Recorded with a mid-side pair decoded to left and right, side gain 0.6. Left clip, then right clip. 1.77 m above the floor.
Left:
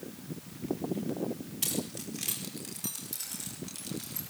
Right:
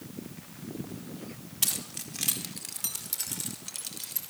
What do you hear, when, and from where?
1.6 s keys jangling: 30° right, 4 m; by 4.3 s 35° right, 6 m